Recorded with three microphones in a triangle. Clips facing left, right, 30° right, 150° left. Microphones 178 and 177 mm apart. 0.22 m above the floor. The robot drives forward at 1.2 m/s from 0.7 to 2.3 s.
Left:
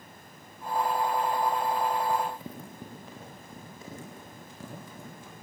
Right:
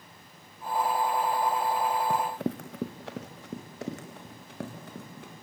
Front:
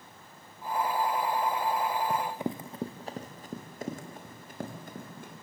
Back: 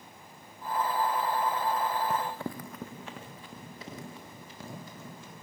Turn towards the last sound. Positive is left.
turn(degrees=-65)